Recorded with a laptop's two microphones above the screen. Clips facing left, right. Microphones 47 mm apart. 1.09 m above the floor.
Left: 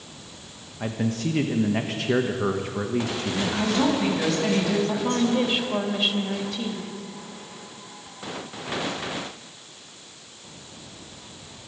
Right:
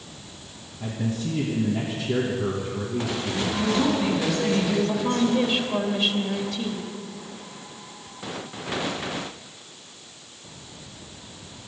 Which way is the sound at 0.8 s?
65° left (ahead or behind).